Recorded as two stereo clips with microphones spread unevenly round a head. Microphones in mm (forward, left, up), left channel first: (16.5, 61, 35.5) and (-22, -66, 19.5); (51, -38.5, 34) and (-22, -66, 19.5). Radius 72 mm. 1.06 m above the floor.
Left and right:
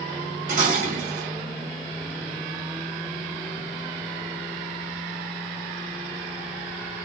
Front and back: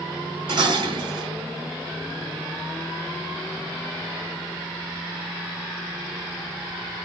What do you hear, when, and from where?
0.5 s dishes clattering: 140° right, 1.1 m